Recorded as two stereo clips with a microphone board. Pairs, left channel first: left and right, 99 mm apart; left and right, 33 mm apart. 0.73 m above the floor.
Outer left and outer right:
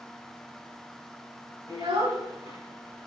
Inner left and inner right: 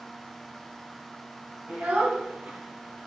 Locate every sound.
1.7 s a child speaking: 70° right (ahead or behind), 4.5 m